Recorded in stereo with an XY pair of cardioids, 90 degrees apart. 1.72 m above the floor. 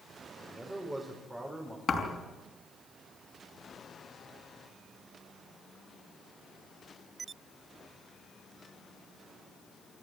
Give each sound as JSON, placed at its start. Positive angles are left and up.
{"t": 0.4, "sound": "a man speaking", "azimuth_deg": -15, "distance_m": 4.5}
{"t": 1.9, "sound": "a thud", "azimuth_deg": 50, "distance_m": 4.5}